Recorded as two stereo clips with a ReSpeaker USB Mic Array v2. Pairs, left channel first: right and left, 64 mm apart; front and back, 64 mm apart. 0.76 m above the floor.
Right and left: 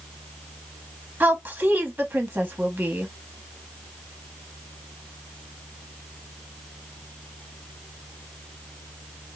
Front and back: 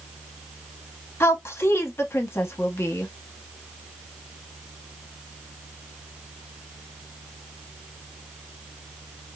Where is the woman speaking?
40° left, 0.9 m.